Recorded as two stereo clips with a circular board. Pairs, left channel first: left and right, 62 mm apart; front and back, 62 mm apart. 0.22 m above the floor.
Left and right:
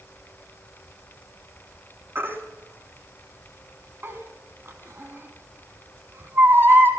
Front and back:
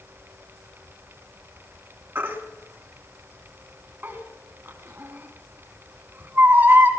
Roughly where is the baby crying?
Behind right.